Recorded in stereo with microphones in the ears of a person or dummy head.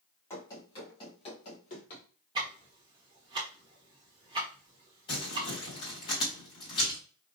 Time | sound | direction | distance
0.3 | running footsteps | 20° left (ahead or behind) | 2.5 m
2.4 | ticking | 25° right (ahead or behind) | 1.1 m
5.1 | crumpling | 25° left (ahead or behind) | 3 m